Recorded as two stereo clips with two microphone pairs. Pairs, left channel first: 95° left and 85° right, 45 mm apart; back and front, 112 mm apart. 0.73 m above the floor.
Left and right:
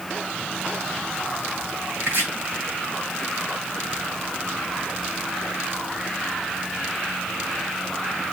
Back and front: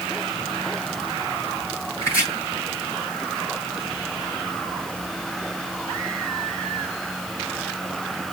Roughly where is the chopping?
Behind right.